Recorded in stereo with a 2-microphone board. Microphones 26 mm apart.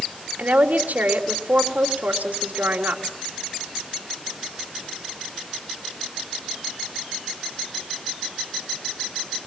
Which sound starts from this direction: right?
A woman speaking, at 0.4 s.